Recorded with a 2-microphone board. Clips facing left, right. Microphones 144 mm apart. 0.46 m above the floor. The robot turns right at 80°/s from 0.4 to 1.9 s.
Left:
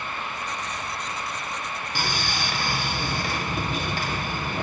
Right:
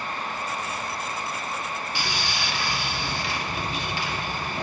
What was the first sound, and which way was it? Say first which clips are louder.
Sawing: left 4 dB; 40° left (ahead or behind).